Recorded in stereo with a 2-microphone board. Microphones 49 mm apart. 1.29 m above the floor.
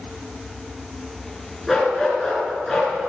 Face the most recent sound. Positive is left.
turn(degrees=5)  # may be behind; listen again after turning